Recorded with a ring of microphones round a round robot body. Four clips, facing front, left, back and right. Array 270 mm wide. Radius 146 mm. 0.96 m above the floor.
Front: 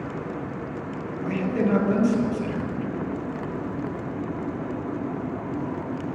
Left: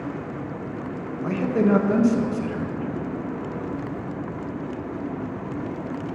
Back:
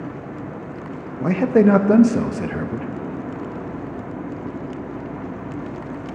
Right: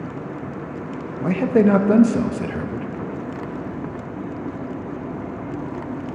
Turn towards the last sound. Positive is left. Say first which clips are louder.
# right 5 dB, back 10 dB
turn(degrees=-155)